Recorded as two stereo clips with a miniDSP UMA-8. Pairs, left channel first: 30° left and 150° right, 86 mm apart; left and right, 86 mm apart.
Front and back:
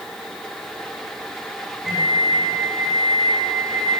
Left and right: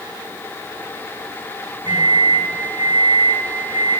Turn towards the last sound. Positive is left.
turn(degrees=-65)